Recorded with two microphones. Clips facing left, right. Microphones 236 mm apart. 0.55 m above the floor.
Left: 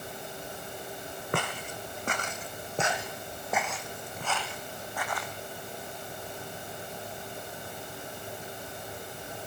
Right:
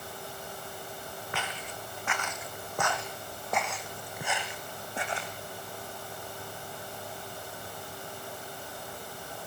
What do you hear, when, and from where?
1.3 s footsteps: 55° left (ahead or behind), 2 m; by 5.3 s 30° right (ahead or behind), 2.5 m